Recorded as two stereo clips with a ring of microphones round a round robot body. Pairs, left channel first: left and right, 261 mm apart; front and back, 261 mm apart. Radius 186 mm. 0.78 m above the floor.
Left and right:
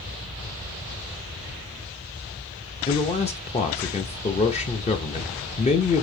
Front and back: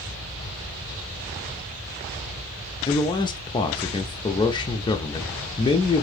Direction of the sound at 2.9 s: 55° left.